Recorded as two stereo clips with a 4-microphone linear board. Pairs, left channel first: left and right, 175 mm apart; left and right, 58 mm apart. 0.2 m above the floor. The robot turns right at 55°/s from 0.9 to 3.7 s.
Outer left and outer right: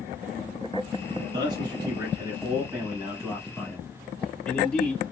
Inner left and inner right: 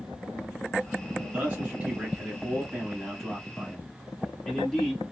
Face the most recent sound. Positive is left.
turn(degrees=5)  # may be behind; listen again after turning